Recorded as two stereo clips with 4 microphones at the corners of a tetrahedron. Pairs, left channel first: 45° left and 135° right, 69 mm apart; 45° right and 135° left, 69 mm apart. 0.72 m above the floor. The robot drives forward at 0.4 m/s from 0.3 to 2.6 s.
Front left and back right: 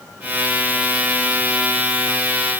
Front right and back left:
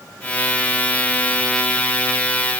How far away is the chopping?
No chopping in this recording.